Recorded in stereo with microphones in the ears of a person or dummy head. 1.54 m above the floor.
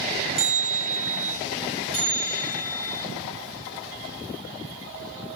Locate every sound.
0.4 s a bell: 30° right (ahead or behind), 1.9 m
1.9 s a bell: centre (ahead or behind), 4.5 m